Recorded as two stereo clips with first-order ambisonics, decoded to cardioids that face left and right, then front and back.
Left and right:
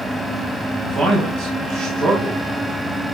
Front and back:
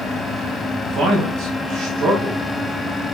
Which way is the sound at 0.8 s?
145° right.